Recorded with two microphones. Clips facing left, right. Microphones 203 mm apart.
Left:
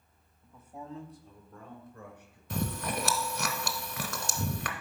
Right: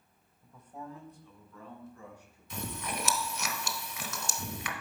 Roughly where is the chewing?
Left.